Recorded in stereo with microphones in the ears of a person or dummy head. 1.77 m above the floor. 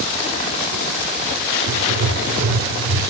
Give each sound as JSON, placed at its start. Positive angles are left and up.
{"t": 1.7, "sound": "writing", "side_deg": -65, "distance_m": 4.5}